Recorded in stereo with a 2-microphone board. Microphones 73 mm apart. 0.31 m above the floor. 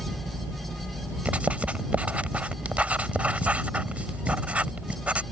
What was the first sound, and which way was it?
Writing, 20° right (ahead or behind).